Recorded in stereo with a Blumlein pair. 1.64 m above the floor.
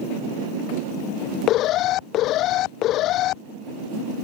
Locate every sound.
1.5 s an alarm: 35° left